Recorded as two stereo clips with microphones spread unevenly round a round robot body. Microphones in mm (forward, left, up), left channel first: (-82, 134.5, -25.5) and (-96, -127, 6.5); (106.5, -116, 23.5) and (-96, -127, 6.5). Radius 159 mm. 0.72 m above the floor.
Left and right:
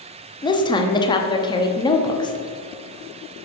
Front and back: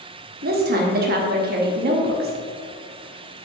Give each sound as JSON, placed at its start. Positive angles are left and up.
{"t": 0.4, "sound": "a woman speaking", "azimuth_deg": 155, "distance_m": 0.8}